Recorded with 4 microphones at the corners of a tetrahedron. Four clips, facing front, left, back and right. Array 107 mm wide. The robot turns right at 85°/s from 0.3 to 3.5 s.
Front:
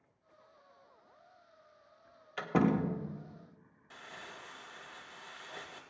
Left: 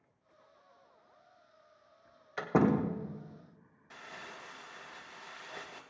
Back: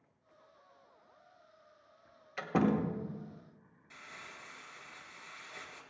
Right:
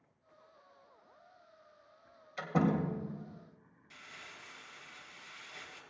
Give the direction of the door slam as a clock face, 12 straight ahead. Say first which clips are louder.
Left 3 dB, front 1 dB; 10 o'clock.